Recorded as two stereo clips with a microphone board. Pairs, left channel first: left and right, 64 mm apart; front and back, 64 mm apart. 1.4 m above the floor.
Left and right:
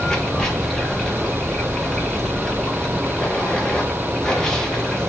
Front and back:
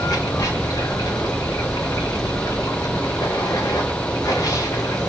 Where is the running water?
15° left, 1.6 m.